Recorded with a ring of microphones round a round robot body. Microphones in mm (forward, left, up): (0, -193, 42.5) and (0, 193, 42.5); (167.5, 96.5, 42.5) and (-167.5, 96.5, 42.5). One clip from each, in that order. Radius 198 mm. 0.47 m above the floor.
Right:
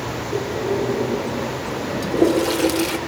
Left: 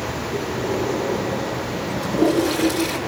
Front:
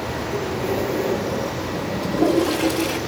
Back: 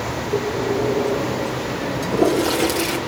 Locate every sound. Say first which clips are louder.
0.3 s breathing: right 3 dB, back 4 dB; 130° right, 7.5 m
2.0 s a toilet flushing: right 1 dB, back 1 dB; 130° right, 2.5 m